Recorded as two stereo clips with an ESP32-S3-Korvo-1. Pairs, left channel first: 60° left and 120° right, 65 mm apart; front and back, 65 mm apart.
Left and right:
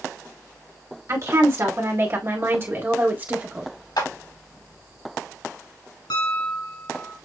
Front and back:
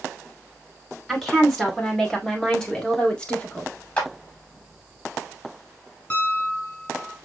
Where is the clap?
65° left, 2.5 m.